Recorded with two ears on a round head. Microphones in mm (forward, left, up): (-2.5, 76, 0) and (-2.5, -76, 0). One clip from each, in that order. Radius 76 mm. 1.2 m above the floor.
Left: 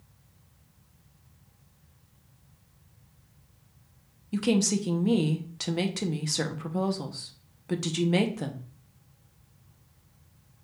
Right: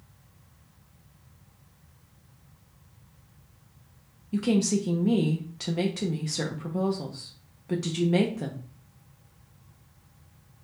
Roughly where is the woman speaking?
Left.